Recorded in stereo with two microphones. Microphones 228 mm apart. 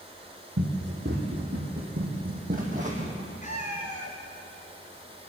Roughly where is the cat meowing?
Left.